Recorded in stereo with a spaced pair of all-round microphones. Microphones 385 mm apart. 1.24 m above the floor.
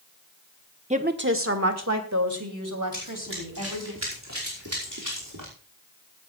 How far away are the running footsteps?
About 4.5 m.